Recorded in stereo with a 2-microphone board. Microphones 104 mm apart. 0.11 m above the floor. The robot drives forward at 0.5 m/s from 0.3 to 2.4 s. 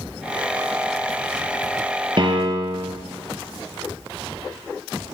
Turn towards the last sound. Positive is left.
turn(degrees=-50)  # may be behind; listen again after turning